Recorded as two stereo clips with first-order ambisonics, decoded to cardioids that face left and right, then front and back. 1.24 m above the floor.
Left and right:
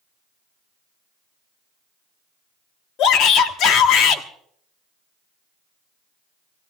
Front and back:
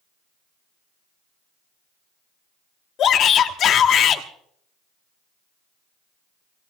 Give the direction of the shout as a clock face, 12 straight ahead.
10 o'clock.